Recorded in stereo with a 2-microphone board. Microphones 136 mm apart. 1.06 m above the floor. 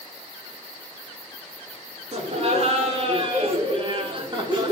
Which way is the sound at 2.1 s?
55° right (ahead or behind).